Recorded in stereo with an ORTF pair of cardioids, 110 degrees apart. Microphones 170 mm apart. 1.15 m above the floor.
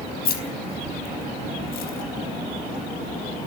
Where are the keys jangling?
65° left, 5 m; by 3.5 s 55° left, 7 m.